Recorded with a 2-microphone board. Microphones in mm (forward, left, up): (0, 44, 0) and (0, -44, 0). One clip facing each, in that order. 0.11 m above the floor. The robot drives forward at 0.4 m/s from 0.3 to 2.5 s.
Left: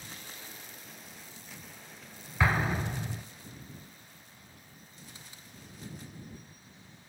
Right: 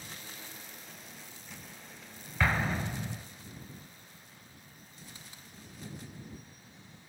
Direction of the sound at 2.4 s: 10° left (ahead or behind).